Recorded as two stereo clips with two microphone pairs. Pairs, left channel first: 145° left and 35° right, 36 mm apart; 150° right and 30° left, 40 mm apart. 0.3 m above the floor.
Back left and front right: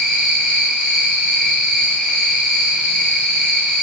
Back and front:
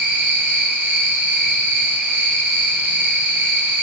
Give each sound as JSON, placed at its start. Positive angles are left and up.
{"t": 0.0, "sound": "an insect", "azimuth_deg": 35, "distance_m": 3.5}